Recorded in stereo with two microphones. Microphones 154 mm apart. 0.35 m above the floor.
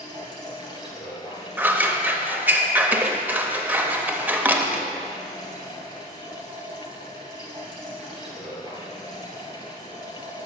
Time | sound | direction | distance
0.0 | running water | 25° left (ahead or behind) | 2 m
1.6 | scissors | 10° right (ahead or behind) | 0.6 m